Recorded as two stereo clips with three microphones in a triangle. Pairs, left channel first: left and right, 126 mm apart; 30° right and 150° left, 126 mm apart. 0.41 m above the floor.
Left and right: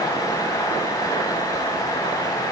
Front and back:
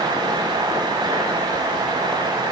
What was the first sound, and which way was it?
Only background noise.